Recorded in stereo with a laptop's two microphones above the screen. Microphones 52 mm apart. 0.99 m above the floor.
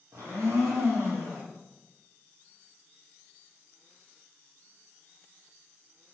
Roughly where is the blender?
Right.